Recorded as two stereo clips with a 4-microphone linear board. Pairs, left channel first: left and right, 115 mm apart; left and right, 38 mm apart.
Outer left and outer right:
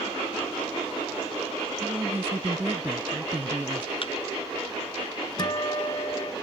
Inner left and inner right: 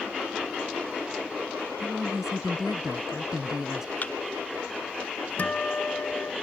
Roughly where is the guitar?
Left.